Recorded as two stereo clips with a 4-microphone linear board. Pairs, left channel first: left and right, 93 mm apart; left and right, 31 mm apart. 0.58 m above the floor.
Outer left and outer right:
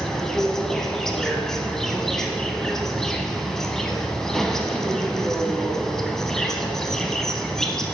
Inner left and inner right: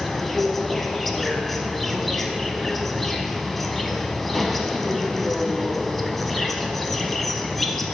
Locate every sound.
0.0 s an insect: 5° left (ahead or behind), 0.7 m